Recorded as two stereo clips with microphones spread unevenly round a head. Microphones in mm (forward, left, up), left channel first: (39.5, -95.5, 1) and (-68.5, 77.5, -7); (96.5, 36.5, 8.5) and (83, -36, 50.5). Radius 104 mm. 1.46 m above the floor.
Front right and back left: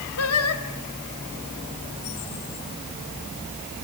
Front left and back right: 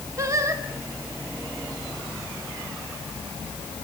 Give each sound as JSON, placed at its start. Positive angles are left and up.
{"t": 0.2, "sound": "singing", "azimuth_deg": -65, "distance_m": 2.5}